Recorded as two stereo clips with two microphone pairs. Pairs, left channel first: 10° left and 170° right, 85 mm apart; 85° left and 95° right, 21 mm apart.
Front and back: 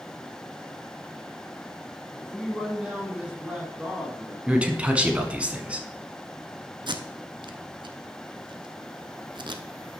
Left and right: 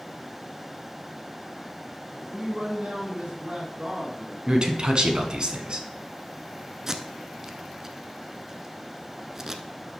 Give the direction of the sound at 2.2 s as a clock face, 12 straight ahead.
2 o'clock.